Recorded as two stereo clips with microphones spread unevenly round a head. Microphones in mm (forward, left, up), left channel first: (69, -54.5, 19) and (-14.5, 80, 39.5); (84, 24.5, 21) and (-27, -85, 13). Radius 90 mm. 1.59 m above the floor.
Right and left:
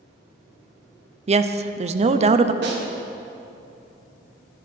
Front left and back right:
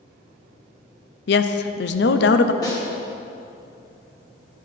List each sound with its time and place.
1.3 s a woman speaking: 70° left, 0.6 m
2.6 s a snare drum: 115° left, 1.6 m